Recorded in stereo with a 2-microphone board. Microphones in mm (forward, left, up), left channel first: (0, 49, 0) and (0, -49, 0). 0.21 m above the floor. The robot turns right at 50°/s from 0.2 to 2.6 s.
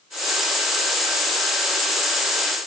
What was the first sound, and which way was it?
Only background noise.